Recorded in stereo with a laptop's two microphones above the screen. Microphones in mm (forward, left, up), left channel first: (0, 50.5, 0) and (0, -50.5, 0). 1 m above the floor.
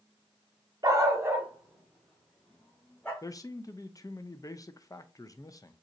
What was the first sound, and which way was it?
A dog barking, 40° right (ahead or behind).